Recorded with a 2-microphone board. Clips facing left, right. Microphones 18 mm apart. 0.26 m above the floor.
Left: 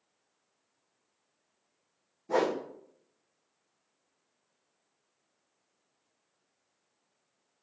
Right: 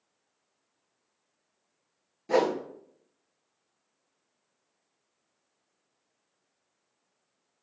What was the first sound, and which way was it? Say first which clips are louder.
A whoosh: right 3 dB; 70° right (ahead or behind).